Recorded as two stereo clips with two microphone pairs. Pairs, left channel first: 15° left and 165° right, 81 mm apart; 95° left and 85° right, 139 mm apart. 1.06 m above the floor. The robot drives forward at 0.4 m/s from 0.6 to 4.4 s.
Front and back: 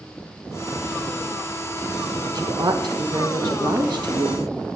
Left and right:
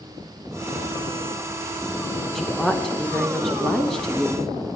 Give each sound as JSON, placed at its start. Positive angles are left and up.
{"t": 2.4, "sound": "a woman speaking", "azimuth_deg": -175, "distance_m": 1.0}